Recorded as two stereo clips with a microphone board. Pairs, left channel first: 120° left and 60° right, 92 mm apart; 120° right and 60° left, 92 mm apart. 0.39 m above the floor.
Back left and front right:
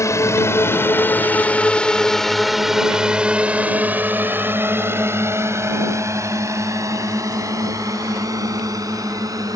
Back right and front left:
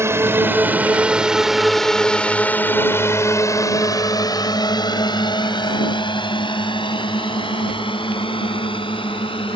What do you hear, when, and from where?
0.0 s a drone: 95° left; by 9.6 s 110° right